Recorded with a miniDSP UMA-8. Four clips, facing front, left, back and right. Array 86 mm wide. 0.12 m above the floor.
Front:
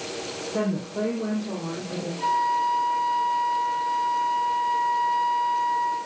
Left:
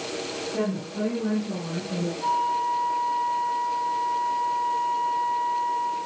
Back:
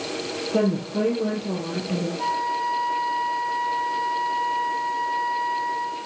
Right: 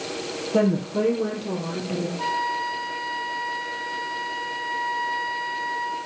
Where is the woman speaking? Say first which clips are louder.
Right 8 dB, back 4 dB; 130° right, 4 m; by 2.1 s 145° right, 3 m.